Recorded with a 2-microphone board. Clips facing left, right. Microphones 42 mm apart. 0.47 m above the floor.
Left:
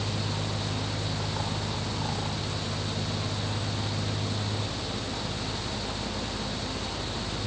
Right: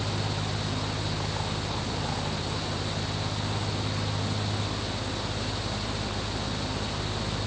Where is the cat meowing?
No cat meowing in this recording.